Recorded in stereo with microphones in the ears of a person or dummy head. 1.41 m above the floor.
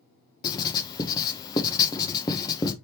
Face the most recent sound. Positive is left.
turn(degrees=20)  # may be behind; listen again after turning